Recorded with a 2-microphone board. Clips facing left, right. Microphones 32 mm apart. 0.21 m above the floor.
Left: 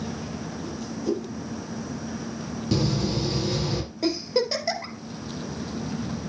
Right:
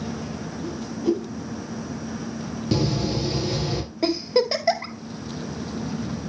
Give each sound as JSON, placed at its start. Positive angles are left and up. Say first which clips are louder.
{"t": 0.6, "sound": "a whoosh", "louder": "right 6 dB", "side_deg": -40, "distance_m": 4.5}
{"t": 2.7, "sound": "a door slam", "louder": "right 1 dB", "side_deg": -10, "distance_m": 3.0}
{"t": 4.0, "sound": "a giggle", "louder": "right 4 dB", "side_deg": -25, "distance_m": 1.8}